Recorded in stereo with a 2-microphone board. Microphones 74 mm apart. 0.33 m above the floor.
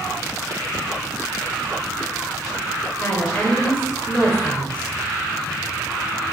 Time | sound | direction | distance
3.0 | a woman speaking | 20° left (ahead or behind) | 0.9 m